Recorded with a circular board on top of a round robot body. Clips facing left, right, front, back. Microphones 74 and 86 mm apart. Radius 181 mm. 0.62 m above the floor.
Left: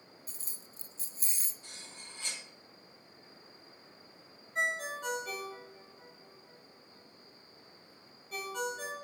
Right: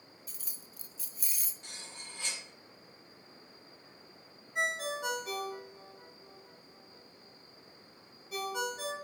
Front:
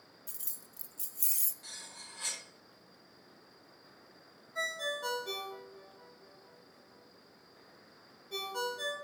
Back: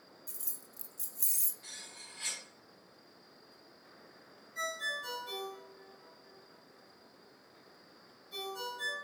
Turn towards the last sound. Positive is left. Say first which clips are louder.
# even, front 2 dB
turn(degrees=-10)